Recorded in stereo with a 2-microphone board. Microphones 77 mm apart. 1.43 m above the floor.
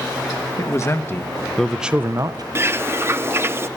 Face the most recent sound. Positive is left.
turn(degrees=-30)  # may be behind; listen again after turning